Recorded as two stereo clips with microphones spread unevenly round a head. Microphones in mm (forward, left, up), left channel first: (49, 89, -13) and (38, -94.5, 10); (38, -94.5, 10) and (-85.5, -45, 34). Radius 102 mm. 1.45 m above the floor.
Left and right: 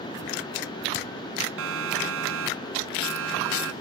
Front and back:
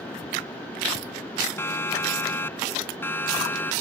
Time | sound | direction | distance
1.6 | a siren | 95° right | ?